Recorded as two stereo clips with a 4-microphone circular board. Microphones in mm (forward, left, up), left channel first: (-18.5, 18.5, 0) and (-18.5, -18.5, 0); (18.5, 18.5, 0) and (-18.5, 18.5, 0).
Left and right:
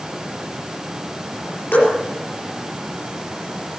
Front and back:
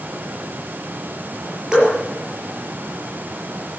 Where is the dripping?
110° left, 6.5 m.